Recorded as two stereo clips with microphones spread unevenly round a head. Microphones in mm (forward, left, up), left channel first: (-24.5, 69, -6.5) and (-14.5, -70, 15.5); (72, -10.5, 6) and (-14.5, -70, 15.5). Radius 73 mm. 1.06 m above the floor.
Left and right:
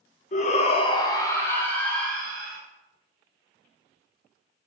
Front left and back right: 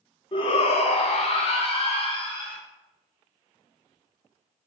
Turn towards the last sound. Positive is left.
turn(degrees=5)